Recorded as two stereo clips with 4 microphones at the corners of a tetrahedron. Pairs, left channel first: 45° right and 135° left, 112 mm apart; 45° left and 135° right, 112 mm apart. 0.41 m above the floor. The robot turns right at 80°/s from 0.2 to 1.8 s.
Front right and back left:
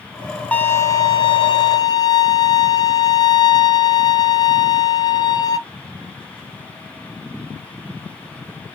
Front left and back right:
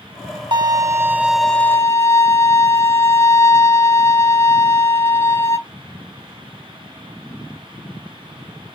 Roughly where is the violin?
Behind right.